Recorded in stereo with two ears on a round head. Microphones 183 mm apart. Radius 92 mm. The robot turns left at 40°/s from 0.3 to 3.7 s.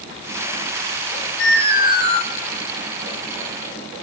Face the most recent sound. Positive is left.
turn(degrees=-30)